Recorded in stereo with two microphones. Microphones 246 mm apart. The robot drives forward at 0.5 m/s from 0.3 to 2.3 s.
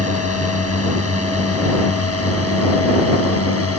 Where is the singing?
I don't hear singing.